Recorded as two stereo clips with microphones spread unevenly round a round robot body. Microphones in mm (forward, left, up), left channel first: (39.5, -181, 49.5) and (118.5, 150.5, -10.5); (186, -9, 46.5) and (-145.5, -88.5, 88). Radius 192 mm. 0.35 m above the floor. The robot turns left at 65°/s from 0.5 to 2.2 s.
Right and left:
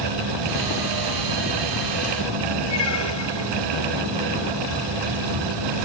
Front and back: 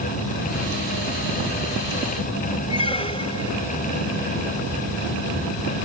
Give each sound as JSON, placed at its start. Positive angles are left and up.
{"t": 2.7, "sound": "a squeak", "azimuth_deg": -60}